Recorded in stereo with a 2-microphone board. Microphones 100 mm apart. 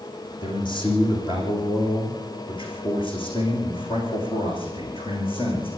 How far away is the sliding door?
I don't hear a sliding door.